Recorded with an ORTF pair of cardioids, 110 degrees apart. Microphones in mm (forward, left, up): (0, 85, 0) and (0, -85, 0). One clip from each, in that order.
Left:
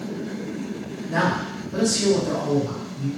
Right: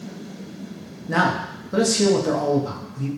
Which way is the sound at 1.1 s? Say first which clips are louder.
Right 2 dB; 55° right.